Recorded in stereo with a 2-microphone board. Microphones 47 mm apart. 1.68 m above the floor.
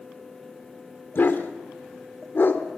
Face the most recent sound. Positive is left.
turn(degrees=50)  # may be behind; listen again after turning